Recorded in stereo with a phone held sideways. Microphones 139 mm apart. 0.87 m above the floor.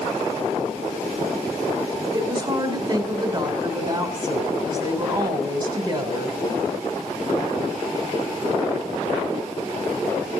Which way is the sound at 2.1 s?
30° right (ahead or behind).